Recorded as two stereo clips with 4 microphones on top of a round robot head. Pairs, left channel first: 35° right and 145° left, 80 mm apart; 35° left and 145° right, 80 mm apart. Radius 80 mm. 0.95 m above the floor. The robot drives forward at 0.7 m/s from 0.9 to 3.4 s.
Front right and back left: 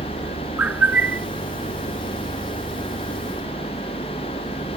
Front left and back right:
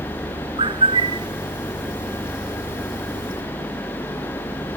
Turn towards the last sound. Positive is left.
turn(degrees=-160)